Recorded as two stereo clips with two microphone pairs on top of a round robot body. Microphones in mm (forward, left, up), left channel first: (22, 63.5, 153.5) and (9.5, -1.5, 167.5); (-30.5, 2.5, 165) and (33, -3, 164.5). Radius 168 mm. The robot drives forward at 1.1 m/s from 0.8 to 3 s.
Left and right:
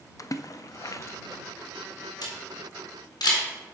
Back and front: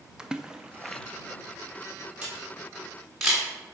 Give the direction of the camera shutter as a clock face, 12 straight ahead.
10 o'clock.